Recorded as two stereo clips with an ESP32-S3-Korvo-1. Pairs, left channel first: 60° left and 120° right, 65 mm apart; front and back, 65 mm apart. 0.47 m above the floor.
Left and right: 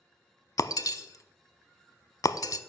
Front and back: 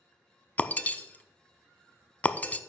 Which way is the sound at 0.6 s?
60° left.